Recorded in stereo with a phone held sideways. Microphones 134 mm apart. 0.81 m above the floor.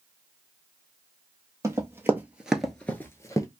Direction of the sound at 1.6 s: 20° right (ahead or behind).